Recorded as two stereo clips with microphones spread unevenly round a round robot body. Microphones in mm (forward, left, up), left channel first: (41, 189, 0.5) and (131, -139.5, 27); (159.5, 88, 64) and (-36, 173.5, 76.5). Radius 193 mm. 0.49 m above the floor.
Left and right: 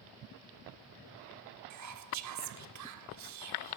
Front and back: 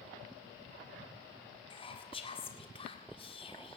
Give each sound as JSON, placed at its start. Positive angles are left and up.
{"t": 1.7, "sound": "whispering", "azimuth_deg": -75, "distance_m": 1.8}